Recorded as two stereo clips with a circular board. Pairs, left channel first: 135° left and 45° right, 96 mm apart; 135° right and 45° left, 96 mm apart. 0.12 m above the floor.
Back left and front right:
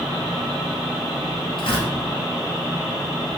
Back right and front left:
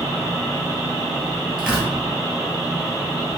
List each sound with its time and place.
1.6 s tearing paper: 125° left, 1.8 m